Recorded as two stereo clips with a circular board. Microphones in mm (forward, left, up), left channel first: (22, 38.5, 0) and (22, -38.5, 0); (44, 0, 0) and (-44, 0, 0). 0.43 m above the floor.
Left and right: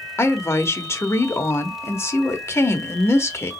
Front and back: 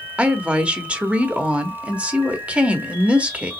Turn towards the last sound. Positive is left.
turn(degrees=110)